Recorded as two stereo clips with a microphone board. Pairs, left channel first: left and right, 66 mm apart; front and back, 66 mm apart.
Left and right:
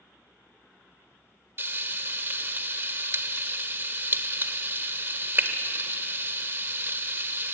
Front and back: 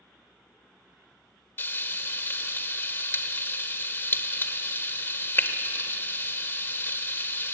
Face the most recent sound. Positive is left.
turn(degrees=-45)